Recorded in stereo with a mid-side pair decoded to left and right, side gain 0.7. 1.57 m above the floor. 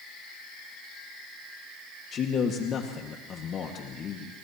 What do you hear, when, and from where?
2.1 s a man speaking: 40° left, 1.9 m